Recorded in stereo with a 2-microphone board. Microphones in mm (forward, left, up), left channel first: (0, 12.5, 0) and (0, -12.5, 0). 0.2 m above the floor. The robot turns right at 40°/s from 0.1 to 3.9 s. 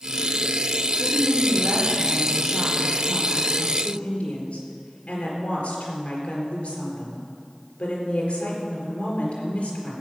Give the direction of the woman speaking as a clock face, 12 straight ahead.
2 o'clock.